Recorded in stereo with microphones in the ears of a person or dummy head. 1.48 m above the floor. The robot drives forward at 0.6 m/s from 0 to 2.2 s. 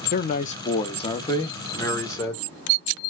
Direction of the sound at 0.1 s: 45° left (ahead or behind).